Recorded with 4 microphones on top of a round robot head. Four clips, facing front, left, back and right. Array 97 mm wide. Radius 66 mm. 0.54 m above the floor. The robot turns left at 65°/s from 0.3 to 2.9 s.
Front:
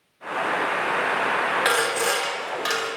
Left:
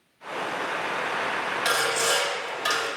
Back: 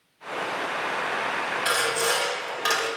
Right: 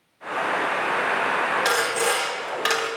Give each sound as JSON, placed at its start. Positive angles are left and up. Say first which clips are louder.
{"t": 1.6, "sound": "sawing", "louder": "right 2 dB, front 3 dB", "azimuth_deg": -30, "distance_m": 1.0}